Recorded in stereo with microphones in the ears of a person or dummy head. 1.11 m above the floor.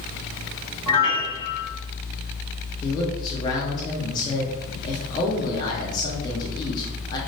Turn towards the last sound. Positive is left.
turn(degrees=25)  # may be behind; listen again after turning